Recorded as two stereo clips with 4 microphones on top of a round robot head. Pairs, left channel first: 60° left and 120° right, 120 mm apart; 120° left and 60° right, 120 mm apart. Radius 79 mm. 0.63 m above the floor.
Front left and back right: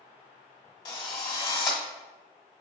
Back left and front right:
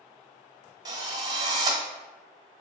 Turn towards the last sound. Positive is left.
turn(degrees=0)